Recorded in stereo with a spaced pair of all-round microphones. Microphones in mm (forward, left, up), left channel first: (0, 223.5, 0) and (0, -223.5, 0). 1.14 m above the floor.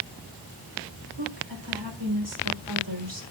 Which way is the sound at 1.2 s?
90° right.